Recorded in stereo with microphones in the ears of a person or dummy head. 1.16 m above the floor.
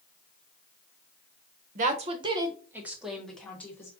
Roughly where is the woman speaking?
Right.